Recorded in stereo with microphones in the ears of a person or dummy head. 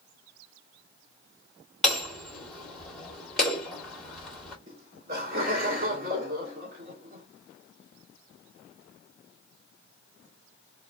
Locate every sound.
1.8 s hammering: 5° left (ahead or behind), 1.7 m
4.7 s laughter: 55° right (ahead or behind), 1.9 m